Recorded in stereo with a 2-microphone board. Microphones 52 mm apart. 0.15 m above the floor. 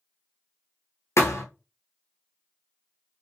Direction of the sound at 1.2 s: 60° left (ahead or behind).